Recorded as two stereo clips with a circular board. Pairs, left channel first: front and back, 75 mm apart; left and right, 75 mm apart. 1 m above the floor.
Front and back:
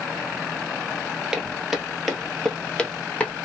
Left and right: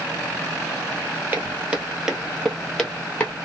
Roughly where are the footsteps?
Right.